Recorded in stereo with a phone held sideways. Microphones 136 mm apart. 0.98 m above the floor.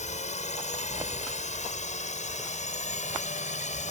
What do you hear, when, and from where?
0.0 s a drone: 60° left (ahead or behind)